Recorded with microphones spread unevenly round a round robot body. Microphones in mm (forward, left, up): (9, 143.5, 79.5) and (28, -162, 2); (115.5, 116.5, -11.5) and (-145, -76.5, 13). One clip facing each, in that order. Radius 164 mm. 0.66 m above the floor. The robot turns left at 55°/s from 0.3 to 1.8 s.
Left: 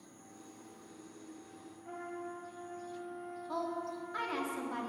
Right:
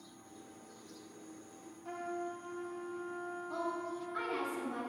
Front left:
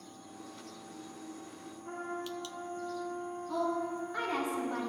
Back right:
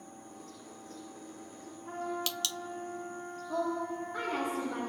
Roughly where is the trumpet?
Ahead right.